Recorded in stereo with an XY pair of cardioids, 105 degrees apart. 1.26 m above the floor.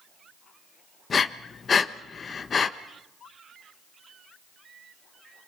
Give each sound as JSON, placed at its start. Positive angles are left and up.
{"t": 1.1, "sound": "breathing", "azimuth_deg": 40, "distance_m": 1.0}